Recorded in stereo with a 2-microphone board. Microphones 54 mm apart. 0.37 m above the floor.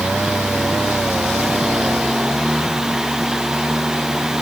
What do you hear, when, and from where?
Only background noise.